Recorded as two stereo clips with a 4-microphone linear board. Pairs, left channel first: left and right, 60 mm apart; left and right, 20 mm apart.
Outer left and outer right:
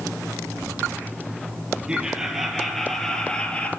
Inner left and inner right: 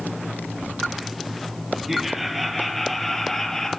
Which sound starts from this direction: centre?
Laughter, at 1.9 s.